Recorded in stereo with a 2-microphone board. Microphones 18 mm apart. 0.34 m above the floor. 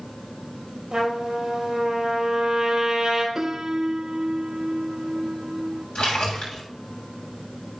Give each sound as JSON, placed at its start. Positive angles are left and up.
{"t": 0.9, "sound": "a trumpet", "side_deg": -35, "distance_m": 5.0}
{"t": 3.4, "sound": "a piano", "side_deg": -30, "distance_m": 0.9}
{"t": 6.0, "sound": "a splash", "side_deg": 75, "distance_m": 8.0}